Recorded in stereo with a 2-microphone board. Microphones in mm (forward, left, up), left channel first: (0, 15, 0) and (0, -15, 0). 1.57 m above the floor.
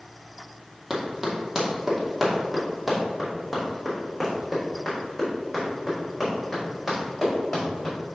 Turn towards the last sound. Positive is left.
turn(degrees=10)  # may be behind; listen again after turning